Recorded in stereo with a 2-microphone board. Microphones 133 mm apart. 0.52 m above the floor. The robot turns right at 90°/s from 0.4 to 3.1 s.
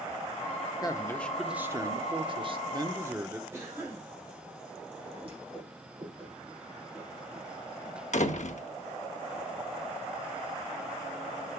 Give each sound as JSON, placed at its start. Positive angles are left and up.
{"t": 0.8, "sound": "a man speaking", "azimuth_deg": 130, "distance_m": 0.9}
{"t": 3.5, "sound": "a cough", "side_deg": -20, "distance_m": 3.0}
{"t": 5.2, "sound": "a whoosh", "side_deg": -40, "distance_m": 6.0}
{"t": 8.1, "sound": "a door slam", "side_deg": 60, "distance_m": 0.8}